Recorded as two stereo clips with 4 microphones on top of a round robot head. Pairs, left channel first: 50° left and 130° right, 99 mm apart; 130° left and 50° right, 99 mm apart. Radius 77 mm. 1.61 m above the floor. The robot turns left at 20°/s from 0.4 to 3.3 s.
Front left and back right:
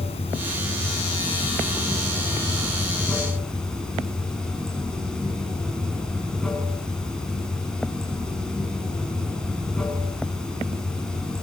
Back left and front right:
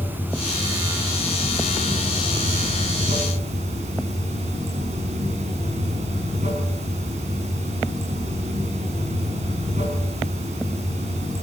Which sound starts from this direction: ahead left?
Running water, at 0.0 s.